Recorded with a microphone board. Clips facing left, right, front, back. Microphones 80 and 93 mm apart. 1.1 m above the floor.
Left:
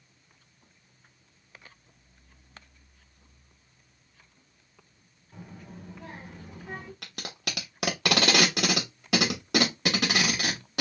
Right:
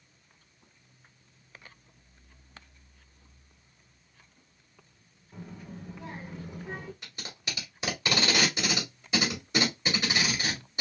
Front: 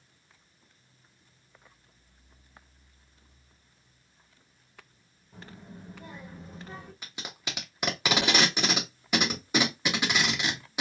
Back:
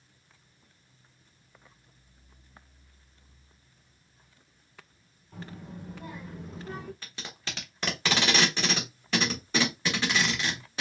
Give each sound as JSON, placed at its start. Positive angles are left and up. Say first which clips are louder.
{"t": 5.3, "sound": "a child speaking", "louder": "right 2 dB, back 4 dB", "azimuth_deg": 180, "distance_m": 2.5}
{"t": 7.0, "sound": "tape being pulled", "louder": "left 3 dB, front 1 dB", "azimuth_deg": 75, "distance_m": 1.2}